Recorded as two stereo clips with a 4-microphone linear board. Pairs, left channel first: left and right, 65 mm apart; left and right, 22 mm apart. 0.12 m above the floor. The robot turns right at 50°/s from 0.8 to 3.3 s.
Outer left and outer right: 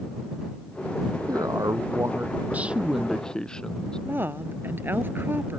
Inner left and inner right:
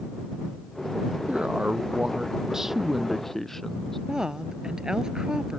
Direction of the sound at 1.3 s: 90° right.